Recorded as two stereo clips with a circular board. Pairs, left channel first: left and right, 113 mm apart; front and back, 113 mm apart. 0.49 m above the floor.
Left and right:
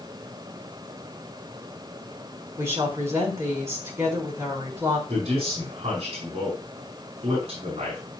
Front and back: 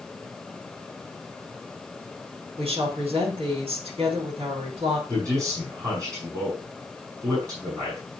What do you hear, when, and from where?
2.6 s a woman speaking: 155° right, 4 m
5.1 s a man speaking: 120° right, 4 m